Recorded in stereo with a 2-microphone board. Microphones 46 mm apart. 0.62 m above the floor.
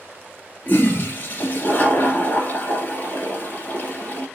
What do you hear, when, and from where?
0.7 s a toilet flushing: 40° left (ahead or behind), 2.0 m